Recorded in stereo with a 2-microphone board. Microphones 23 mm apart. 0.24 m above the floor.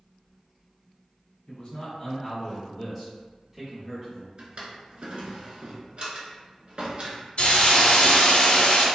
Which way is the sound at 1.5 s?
35° left (ahead or behind).